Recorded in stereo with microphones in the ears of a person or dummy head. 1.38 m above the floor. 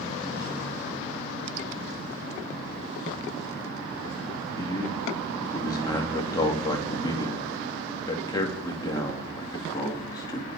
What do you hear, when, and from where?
4.6 s a man speaking: 25° left (ahead or behind), 3 m